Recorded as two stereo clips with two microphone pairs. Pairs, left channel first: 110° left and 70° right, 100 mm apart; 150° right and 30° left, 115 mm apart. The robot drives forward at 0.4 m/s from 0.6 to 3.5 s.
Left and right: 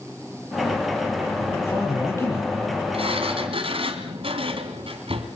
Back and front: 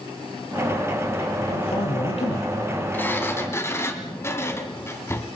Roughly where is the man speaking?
Behind.